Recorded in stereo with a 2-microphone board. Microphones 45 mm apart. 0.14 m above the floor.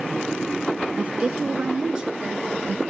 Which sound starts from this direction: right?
A woman speaking, at 1.0 s.